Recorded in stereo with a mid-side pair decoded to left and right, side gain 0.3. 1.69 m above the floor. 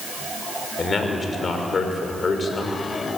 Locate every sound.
0.8 s a man speaking: 55° left, 6 m